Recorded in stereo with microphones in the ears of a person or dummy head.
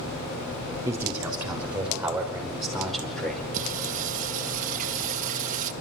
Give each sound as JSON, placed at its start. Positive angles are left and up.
{"t": 0.8, "sound": "a man speaking", "side_deg": -10, "distance_m": 6.0}
{"t": 3.5, "sound": "singing", "side_deg": -40, "distance_m": 1.3}